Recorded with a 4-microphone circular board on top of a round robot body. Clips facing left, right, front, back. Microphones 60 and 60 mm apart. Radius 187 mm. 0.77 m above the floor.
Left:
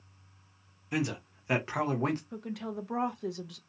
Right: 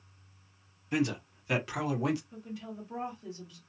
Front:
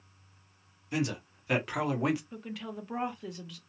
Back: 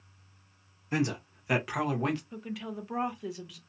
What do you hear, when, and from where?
0.9 s a man speaking: 170° left, 1.1 m; by 2.2 s 80° left, 1.3 m
2.3 s a woman speaking: 95° left, 0.7 m